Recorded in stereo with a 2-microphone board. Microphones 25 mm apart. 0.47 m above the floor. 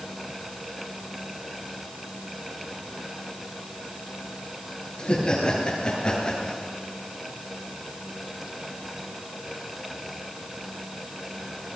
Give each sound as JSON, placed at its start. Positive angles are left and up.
{"t": 5.0, "sound": "laughter", "side_deg": 35, "distance_m": 9.0}